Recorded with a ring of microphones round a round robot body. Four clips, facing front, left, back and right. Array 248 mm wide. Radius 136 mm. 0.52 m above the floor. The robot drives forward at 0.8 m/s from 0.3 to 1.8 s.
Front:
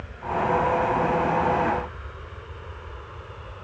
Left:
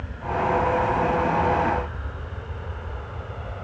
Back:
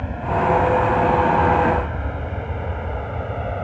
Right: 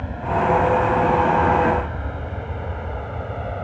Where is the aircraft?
150° right; by 3.6 s 155° right.